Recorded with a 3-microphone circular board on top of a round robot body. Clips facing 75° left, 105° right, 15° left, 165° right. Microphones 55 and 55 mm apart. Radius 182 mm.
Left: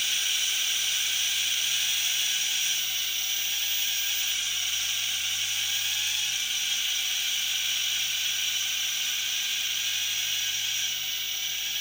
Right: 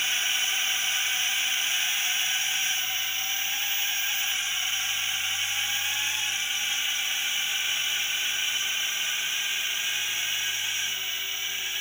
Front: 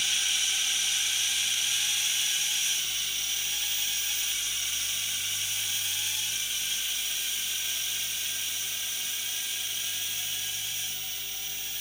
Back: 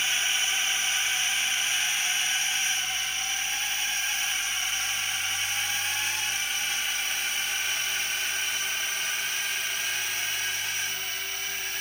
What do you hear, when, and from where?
0.0 s a drone: 145° right; by 11.8 s 165° right